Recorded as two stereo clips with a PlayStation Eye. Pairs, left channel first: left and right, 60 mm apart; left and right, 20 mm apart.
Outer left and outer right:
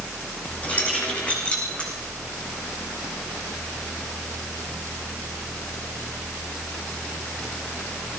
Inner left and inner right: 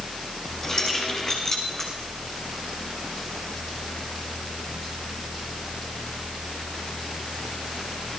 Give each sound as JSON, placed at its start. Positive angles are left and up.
{"t": 0.6, "sound": "keys jangling", "side_deg": 20, "distance_m": 4.5}